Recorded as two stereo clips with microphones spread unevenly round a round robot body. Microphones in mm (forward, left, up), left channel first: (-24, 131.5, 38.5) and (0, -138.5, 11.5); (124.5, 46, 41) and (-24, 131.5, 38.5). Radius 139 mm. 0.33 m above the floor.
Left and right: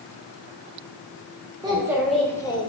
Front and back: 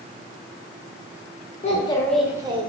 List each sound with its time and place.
1.6 s a child speaking: 30° right, 0.7 m; by 2.7 s 160° left, 0.7 m